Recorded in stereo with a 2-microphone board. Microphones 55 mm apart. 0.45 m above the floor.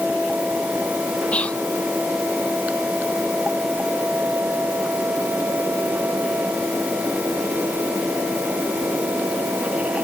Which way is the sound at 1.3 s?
25° left (ahead or behind).